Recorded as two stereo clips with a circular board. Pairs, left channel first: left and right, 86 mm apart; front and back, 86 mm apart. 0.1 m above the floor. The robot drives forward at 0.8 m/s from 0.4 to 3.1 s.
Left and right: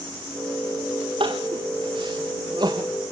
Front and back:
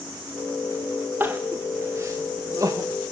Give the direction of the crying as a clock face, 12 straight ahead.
4 o'clock.